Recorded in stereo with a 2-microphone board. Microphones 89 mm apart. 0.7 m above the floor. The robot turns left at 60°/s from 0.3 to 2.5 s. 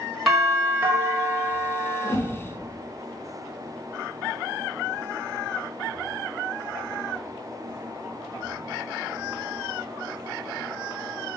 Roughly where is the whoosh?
Left.